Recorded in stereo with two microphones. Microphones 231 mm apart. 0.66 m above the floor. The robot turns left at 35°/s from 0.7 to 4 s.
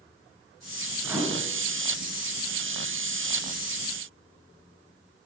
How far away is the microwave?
About 6.5 m.